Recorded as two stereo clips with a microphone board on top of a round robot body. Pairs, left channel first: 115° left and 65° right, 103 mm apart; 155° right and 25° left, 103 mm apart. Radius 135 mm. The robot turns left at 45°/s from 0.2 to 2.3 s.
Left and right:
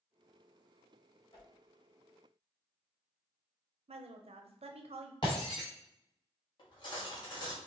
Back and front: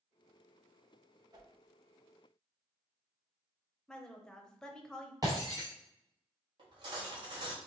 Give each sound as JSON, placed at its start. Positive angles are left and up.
{"t": 1.3, "sound": "a whoosh", "azimuth_deg": 70, "distance_m": 1.1}
{"t": 3.9, "sound": "a woman speaking", "azimuth_deg": -75, "distance_m": 0.8}
{"t": 5.2, "sound": "breaking glass", "azimuth_deg": 70, "distance_m": 0.9}
{"t": 6.6, "sound": "cutlery clinking", "azimuth_deg": 65, "distance_m": 1.3}